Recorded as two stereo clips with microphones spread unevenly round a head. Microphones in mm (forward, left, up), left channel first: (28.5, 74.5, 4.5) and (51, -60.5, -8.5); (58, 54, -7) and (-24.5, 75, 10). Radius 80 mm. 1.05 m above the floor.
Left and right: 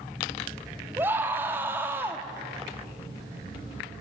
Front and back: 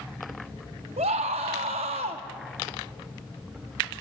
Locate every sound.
1.0 s a scream: 160° right, 1.8 m